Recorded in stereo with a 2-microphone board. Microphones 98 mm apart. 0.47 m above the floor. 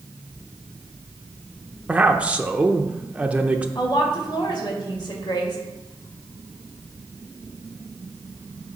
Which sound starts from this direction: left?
A woman speaking, at 3.8 s.